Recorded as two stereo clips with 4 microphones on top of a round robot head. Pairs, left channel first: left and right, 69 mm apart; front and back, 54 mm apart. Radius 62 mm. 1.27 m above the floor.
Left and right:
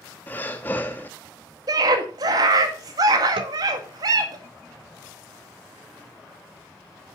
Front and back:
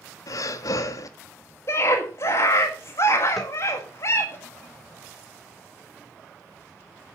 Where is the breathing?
20° left, 1.5 m.